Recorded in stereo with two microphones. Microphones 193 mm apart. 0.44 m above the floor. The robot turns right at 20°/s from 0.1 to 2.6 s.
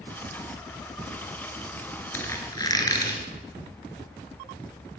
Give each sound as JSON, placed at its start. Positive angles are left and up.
{"t": 2.1, "sound": "a squeak", "side_deg": 10, "distance_m": 2.5}